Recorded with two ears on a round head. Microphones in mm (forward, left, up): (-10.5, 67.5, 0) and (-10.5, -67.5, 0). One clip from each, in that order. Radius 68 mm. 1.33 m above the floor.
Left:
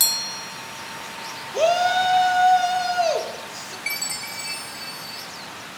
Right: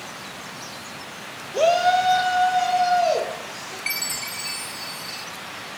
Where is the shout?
10° left (ahead or behind), 1.1 m; by 3.8 s 45° left (ahead or behind), 2.5 m.